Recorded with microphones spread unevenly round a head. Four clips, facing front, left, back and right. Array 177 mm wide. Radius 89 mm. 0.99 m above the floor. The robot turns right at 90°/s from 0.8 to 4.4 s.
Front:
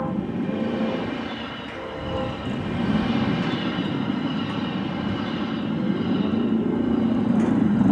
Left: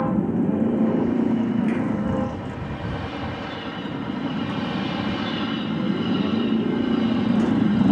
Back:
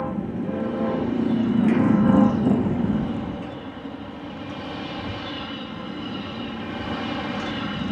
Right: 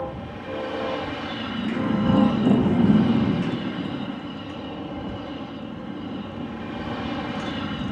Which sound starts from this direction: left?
A motorcycle, at 0.0 s.